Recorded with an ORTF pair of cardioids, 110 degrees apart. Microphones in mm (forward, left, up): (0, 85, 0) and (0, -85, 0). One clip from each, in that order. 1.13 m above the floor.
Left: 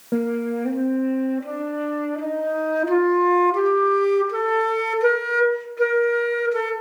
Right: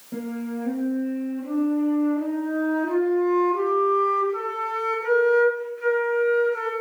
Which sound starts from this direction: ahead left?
A flute, at 0.1 s.